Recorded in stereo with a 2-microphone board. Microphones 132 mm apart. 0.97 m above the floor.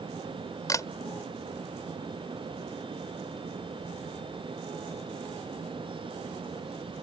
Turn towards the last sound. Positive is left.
turn(degrees=25)  # may be behind; listen again after turning